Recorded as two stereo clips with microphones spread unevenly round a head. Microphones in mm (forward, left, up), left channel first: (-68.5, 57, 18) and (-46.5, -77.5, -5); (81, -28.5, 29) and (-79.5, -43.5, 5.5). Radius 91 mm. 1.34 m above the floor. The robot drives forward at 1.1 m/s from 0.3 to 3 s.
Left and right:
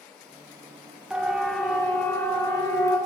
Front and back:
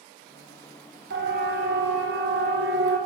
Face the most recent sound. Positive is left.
turn(degrees=165)